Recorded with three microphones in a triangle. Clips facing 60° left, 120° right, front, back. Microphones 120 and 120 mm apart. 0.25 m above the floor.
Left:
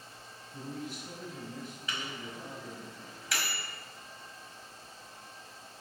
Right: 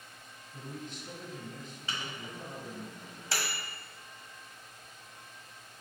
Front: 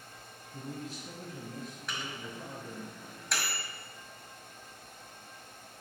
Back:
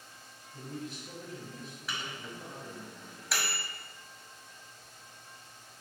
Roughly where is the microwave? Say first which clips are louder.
Right 1 dB, back 1 dB; right.